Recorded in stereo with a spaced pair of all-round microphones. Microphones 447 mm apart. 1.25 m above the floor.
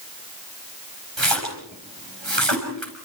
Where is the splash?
80° right, 5.5 m.